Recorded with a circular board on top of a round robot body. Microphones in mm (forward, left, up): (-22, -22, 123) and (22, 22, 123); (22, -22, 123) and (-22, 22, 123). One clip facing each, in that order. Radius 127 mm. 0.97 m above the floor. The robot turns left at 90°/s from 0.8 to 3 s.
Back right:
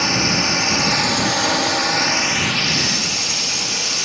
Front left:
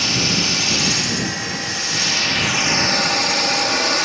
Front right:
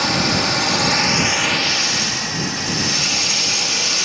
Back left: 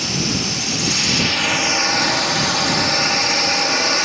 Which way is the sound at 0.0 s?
75° right.